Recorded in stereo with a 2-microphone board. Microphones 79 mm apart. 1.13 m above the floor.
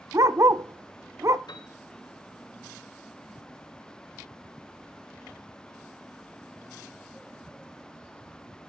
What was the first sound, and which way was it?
A dog barking, 40° right (ahead or behind).